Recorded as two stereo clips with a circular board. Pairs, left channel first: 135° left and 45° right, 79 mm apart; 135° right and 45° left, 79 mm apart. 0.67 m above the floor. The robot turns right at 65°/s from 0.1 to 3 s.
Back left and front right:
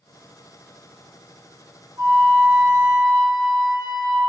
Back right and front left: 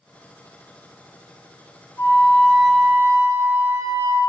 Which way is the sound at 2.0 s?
85° right.